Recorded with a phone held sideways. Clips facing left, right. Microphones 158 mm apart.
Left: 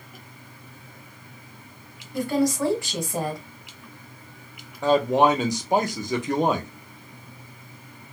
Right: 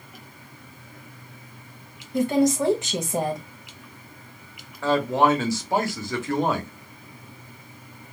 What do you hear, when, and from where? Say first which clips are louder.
2.1 s a woman speaking: right 3 dB; 20° right (ahead or behind), 1.1 m
4.8 s a man speaking: left 2 dB; 20° left (ahead or behind), 1.0 m